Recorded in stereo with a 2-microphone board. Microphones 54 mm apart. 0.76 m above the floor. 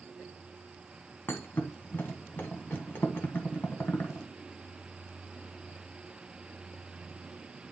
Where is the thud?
45° left (ahead or behind), 1.6 m.